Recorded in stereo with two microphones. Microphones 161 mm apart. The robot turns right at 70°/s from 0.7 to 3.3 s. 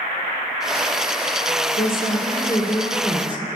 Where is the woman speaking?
100° left, 2 m; by 3.5 s 150° right, 2 m.